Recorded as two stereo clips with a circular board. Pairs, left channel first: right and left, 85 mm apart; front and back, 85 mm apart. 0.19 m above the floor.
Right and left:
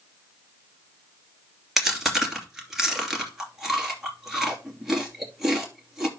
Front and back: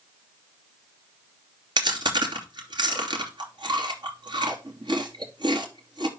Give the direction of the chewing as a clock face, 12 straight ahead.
6 o'clock.